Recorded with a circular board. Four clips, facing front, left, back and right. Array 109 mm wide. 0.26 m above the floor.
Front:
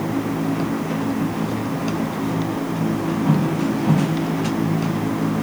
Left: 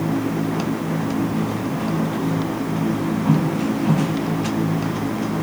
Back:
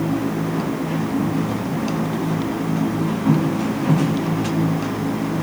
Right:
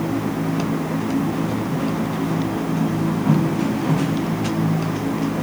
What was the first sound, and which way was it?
Only background noise.